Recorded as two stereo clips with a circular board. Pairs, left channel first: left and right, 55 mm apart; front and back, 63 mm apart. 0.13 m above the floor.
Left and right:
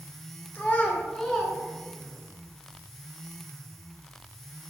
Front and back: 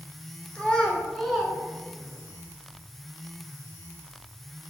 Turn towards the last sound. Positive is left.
turn(degrees=-135)